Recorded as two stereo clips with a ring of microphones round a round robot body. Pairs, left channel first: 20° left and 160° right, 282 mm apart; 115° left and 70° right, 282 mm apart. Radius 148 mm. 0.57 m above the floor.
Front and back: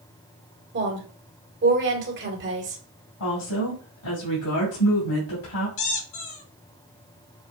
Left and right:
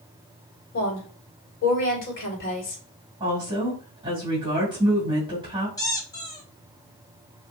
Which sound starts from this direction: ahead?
A woman speaking, at 3.2 s.